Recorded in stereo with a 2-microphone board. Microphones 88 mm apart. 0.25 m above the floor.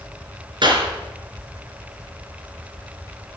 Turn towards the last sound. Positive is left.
turn(degrees=-60)  # may be behind; listen again after turning